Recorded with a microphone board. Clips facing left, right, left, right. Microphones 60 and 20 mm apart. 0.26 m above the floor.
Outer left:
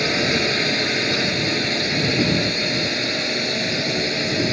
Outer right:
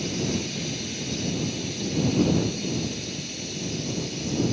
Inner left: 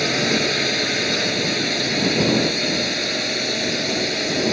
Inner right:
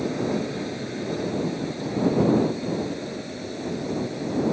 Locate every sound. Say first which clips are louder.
0.0 s a drone: outer left 8 dB, inner left 7 dB; 75° left (ahead or behind)